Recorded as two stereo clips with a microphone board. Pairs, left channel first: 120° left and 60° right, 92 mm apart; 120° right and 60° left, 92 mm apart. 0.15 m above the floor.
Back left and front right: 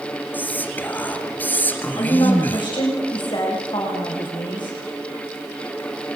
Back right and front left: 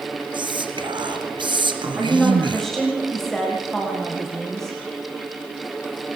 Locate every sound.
0.3 s whispering: 50° left, 2.5 m
2.0 s a woman speaking: 155° left, 9 m